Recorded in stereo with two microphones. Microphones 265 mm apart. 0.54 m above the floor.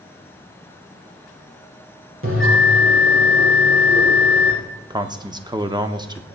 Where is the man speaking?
15° right (ahead or behind), 0.7 m.